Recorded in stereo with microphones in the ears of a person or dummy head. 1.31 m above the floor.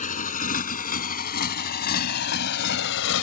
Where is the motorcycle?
45° left (ahead or behind); by 3.2 s 70° left (ahead or behind).